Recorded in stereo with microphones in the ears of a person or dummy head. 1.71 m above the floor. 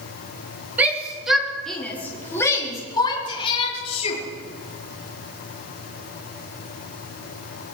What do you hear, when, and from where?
0.8 s a shout: 10° right (ahead or behind), 4 m; by 4.2 s 35° left (ahead or behind), 5 m